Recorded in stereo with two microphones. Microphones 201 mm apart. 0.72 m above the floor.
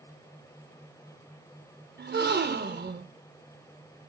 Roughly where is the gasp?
Right.